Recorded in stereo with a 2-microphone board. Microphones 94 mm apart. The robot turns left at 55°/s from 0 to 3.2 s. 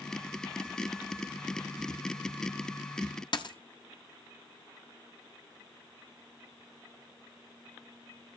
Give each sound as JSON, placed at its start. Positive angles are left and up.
{"t": 3.3, "sound": "a dropped coin", "side_deg": 50, "distance_m": 0.8}